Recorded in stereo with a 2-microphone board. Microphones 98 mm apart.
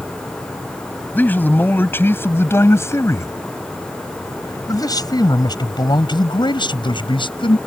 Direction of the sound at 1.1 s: 20° left (ahead or behind).